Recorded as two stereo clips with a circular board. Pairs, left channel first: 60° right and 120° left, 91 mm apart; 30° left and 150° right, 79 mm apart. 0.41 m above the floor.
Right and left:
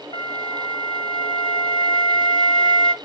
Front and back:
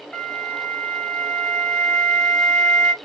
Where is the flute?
50° right, 0.8 m.